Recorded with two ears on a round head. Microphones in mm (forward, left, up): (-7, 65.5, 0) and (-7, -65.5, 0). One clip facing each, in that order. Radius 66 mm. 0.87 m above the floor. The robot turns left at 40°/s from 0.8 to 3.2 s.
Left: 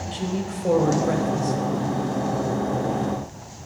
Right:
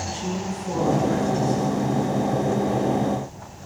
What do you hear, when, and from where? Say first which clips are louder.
0.1 s a woman speaking: left 3 dB; 110° left, 4 m; by 1.6 s 75° left, 4 m